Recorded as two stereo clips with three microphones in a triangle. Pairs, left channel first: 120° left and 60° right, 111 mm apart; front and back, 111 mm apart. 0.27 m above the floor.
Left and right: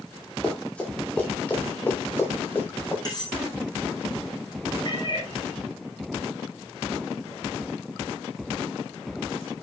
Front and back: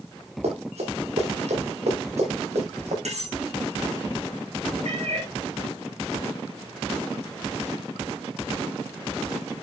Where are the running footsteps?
160° right, 6.5 m; by 3.0 s 170° right, 8 m.